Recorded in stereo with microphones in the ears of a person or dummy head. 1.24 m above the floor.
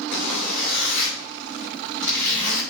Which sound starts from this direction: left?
A zipper, at 0.1 s.